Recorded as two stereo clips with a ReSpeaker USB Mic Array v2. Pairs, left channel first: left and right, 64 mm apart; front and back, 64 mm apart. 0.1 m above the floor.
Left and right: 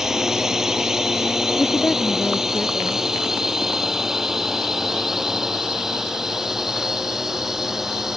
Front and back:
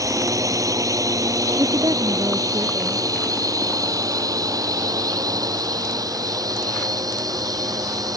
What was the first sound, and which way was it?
A drone, 175° right.